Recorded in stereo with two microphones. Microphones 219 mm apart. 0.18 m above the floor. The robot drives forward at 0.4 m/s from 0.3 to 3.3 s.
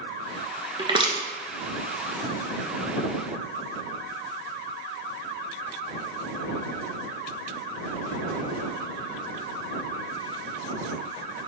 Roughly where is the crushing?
Right.